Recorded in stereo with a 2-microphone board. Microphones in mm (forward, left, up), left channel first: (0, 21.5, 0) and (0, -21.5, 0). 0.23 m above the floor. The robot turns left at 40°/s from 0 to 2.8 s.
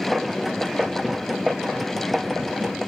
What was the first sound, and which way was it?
Only background noise.